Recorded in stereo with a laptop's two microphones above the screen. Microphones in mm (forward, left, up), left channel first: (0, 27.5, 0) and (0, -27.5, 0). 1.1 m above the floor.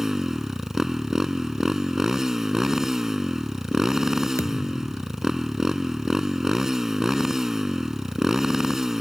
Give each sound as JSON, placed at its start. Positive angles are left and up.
{"t": 0.0, "sound": "a motorcycle", "side_deg": -10}
{"t": 4.4, "sound": "a thud", "side_deg": 65}